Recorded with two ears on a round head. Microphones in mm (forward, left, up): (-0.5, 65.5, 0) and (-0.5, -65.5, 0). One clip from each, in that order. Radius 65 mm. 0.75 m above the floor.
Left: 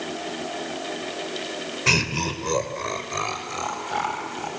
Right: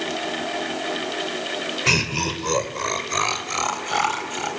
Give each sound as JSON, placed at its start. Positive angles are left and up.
{"t": 1.9, "sound": "laughter", "side_deg": 0, "distance_m": 3.0}